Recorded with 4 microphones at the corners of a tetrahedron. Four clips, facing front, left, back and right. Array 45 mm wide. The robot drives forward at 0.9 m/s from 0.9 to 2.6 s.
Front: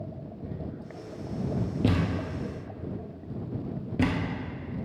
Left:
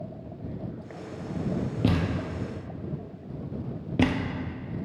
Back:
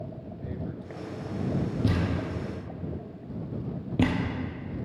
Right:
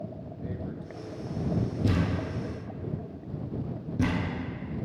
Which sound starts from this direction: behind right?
Tearing paper, at 0.4 s.